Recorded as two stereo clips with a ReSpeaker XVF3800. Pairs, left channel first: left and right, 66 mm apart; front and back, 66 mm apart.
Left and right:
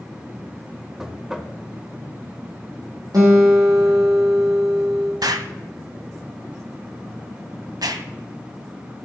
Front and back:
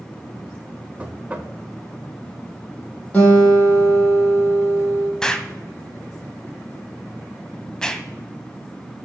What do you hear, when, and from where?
1.0 s knocking: 155° right, 0.8 m
3.1 s a guitar: 70° right, 3.5 m
5.2 s an explosion: 80° right, 0.6 m